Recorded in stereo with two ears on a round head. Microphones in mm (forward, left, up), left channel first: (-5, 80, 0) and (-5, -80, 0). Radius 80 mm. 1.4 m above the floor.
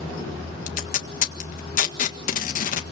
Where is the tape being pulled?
50° left (ahead or behind), 1.7 m.